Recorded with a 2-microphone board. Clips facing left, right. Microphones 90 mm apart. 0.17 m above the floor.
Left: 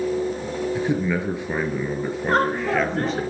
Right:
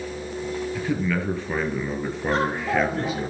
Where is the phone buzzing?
I don't hear a phone buzzing.